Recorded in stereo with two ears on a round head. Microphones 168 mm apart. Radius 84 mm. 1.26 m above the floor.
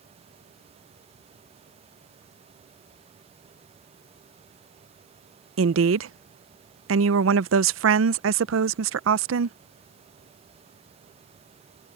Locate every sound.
5.6 s a woman speaking: 75° right (ahead or behind)